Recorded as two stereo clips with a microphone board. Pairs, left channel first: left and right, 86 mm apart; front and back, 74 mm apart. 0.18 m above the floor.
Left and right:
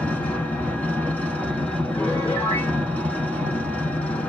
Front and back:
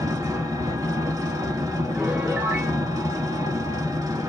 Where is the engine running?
160° left, 0.8 m.